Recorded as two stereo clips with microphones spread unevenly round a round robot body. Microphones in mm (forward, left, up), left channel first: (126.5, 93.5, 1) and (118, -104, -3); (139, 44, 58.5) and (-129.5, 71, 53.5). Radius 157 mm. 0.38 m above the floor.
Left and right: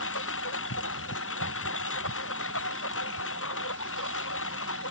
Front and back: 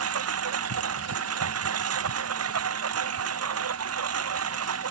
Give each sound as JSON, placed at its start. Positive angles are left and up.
{"t": 0.0, "sound": "a lawn mower", "azimuth_deg": 140}